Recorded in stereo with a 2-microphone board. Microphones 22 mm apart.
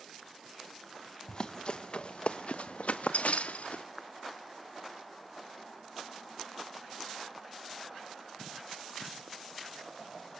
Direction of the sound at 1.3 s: 30° left (ahead or behind).